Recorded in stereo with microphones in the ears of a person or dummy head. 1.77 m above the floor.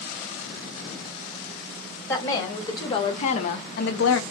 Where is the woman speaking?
15° left (ahead or behind), 1.5 m; by 4.2 s 85° left, 0.6 m.